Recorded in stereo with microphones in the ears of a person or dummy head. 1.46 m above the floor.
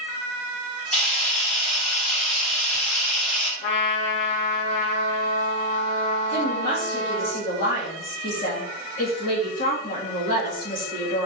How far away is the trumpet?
About 0.7 m.